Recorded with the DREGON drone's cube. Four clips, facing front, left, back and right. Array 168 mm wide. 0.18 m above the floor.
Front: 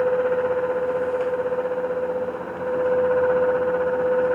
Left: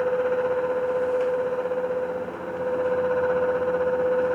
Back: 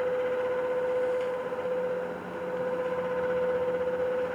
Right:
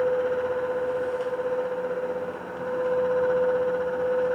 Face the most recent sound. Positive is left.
No sound to turn to.